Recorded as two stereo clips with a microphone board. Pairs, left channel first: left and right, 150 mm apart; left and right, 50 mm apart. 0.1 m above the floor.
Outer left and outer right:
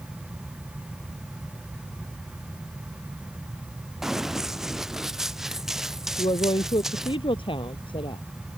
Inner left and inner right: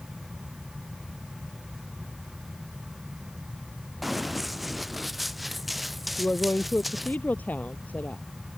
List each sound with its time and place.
4.0 s running footsteps: 5° right (ahead or behind)
6.2 s a woman speaking: 35° left (ahead or behind)